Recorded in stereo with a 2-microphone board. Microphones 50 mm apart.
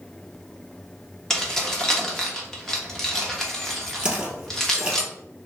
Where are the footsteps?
15° right (ahead or behind), 1.7 m.